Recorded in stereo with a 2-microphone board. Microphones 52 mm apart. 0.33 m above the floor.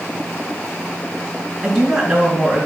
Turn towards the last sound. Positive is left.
turn(degrees=0)  # may be behind; listen again after turning